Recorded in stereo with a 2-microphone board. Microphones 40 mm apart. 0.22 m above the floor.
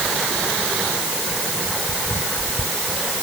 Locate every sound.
Only background noise.